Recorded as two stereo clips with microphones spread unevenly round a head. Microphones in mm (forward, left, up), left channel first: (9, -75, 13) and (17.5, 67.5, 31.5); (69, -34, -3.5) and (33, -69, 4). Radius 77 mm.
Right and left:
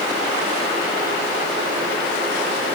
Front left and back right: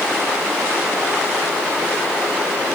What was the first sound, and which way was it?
Only background noise.